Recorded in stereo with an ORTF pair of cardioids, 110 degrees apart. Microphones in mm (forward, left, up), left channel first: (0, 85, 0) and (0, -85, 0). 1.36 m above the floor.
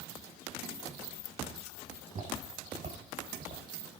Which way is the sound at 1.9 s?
45° right.